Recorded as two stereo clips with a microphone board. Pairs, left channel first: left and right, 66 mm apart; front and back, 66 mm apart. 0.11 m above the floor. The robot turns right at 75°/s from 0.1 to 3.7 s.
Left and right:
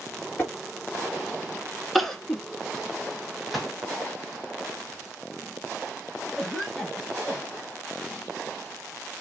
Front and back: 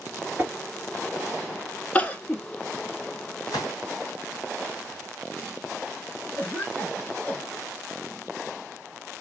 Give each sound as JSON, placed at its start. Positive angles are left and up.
{"t": 0.4, "sound": "tapping", "azimuth_deg": 130, "distance_m": 2.0}
{"t": 1.9, "sound": "crying", "azimuth_deg": 0, "distance_m": 0.7}
{"t": 3.5, "sound": "a gunshot", "azimuth_deg": -5, "distance_m": 1.0}
{"t": 6.4, "sound": "a cough", "azimuth_deg": 10, "distance_m": 1.2}